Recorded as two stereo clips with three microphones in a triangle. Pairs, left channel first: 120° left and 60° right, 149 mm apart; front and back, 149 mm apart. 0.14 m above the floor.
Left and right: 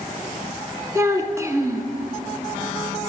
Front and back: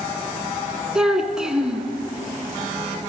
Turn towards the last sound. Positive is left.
turn(degrees=-100)